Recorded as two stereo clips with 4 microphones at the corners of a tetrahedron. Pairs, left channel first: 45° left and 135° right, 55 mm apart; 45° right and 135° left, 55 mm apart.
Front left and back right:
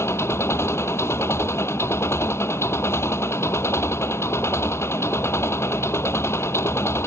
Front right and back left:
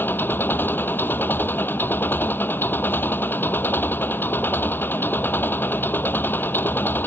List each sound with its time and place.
0.0 s an engine running: 5° left